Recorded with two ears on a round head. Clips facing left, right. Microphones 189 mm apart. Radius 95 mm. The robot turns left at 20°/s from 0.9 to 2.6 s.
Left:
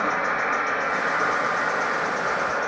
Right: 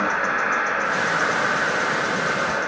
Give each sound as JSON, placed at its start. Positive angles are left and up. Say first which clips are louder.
{"t": 0.0, "sound": "an insect", "louder": "right 1 dB", "azimuth_deg": -115, "distance_m": 1.2}